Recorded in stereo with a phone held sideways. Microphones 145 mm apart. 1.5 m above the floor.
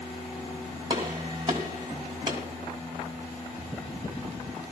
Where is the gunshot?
30° right (ahead or behind), 3 m.